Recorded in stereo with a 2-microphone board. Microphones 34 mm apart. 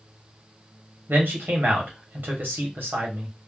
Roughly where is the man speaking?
Right.